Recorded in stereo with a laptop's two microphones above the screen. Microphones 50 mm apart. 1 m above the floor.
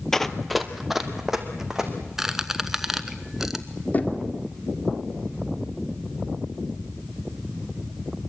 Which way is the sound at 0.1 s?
10° left (ahead or behind).